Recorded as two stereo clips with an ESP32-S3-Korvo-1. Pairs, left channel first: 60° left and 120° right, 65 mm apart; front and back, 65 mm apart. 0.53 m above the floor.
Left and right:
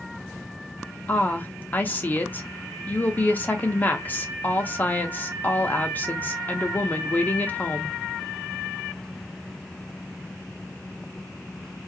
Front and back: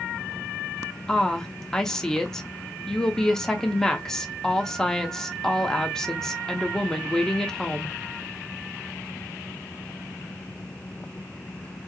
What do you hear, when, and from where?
1.1 s a woman speaking: 75° left, 0.7 m